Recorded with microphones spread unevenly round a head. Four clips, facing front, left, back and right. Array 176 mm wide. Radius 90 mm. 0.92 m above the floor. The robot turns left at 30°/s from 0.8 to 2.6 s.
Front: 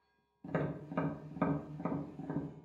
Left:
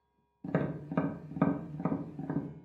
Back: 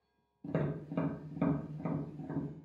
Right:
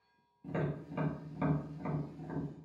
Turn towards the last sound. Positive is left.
turn(degrees=55)